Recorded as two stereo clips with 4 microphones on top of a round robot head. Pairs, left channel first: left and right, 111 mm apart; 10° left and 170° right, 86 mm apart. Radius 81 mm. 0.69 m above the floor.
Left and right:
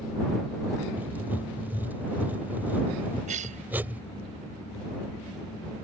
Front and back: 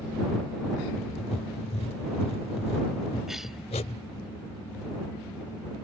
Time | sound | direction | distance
1.0 | writing | 15° right | ?
3.3 | a cough | 85° right | ?